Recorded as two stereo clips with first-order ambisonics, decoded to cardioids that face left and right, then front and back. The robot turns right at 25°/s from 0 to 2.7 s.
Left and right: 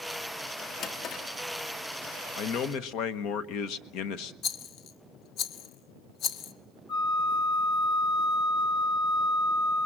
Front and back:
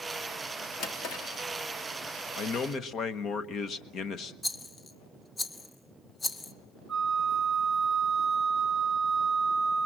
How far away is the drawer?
About 1.8 m.